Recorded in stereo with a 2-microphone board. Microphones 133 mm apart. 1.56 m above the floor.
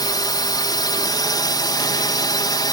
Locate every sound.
0.0 s a drone: 30° left (ahead or behind)